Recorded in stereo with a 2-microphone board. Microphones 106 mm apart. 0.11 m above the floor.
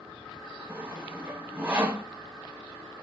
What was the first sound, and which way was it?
Sawing, 20° right (ahead or behind).